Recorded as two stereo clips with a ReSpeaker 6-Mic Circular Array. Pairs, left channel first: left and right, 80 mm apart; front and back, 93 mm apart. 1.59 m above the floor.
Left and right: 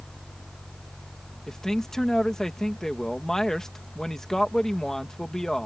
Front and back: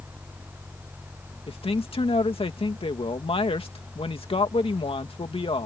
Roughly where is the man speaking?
Ahead.